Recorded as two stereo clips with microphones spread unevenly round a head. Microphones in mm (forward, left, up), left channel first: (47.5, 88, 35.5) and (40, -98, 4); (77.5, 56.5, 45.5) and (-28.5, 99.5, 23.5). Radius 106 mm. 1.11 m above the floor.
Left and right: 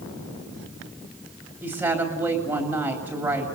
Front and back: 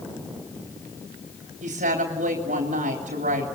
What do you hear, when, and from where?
1.6 s a woman speaking: 170° right, 3.5 m